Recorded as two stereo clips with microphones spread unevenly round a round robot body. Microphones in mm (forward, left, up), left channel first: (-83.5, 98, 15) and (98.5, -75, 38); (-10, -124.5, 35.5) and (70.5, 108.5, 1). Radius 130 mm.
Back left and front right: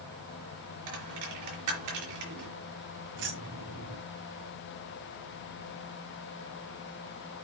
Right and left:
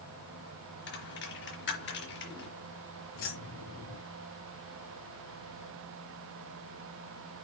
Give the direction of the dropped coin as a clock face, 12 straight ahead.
2 o'clock.